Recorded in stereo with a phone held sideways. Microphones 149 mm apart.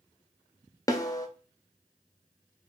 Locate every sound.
0.9 s a snare drum: 25° left (ahead or behind), 0.5 m